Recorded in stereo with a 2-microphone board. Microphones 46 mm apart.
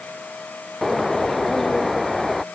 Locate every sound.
0.8 s a bird: 5° left (ahead or behind)